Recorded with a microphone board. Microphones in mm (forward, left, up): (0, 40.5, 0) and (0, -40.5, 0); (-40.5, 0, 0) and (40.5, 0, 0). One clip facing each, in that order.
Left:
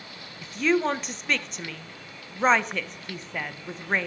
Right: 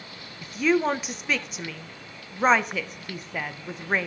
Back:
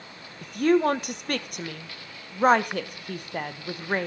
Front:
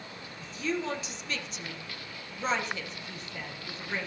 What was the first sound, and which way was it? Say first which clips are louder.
A woman speaking: right 1 dB, back 12 dB; 175° right.